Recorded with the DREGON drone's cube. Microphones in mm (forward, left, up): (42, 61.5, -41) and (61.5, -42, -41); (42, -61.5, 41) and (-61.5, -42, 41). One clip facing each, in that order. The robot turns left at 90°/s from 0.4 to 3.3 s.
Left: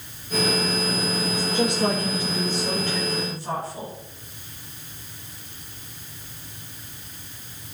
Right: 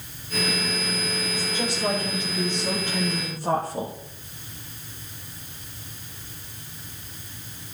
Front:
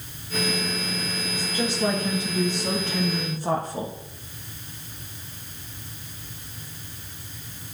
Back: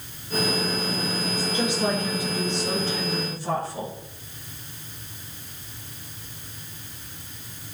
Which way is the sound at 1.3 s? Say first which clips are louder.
Left 7 dB, even; 130° left.